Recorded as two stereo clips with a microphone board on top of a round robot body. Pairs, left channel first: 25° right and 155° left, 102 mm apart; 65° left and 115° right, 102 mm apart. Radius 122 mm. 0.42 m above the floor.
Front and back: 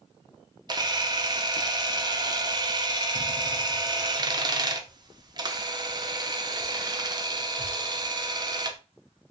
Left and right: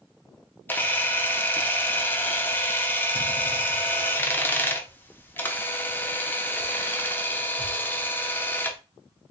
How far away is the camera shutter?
About 0.7 m.